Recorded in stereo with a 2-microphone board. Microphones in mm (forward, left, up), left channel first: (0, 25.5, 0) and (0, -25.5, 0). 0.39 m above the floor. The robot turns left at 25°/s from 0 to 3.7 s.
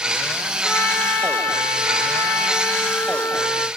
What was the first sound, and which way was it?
A trumpet, 125° left.